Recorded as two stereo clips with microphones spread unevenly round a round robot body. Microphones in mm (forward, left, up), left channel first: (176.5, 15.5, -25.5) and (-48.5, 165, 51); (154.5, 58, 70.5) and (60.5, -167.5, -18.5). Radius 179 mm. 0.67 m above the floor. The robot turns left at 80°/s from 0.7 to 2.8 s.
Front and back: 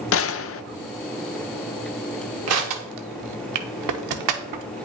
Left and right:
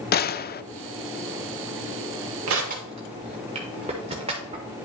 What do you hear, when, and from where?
0.1 s a gunshot: 10° left, 0.6 m
2.5 s crushing: 160° right, 0.6 m; by 4.7 s 170° left, 0.6 m